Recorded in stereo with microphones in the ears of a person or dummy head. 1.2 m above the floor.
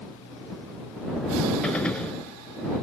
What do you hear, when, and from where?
1.6 s a gunshot: 5° left (ahead or behind)